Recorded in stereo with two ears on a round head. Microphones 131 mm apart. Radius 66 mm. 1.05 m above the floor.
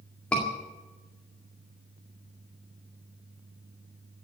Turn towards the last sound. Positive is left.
turn(degrees=10)  # may be behind; listen again after turning